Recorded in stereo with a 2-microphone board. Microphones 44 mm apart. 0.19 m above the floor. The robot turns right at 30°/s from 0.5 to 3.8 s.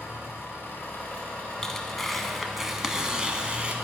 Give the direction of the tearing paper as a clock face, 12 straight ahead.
7 o'clock.